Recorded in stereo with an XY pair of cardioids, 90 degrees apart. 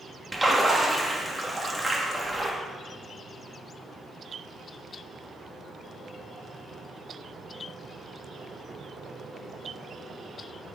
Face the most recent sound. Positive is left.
turn(degrees=-5)